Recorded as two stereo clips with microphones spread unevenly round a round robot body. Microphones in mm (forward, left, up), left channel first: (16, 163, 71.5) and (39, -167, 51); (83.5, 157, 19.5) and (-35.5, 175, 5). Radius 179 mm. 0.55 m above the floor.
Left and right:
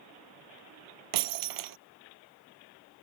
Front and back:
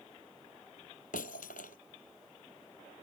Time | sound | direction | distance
1.1 | breaking glass | 60° right | ?